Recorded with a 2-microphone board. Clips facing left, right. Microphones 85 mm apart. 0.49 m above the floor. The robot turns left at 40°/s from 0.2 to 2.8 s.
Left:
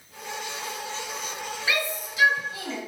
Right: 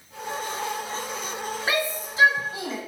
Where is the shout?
40° right (ahead or behind), 1.0 m; by 2.8 s 20° right (ahead or behind), 1.0 m.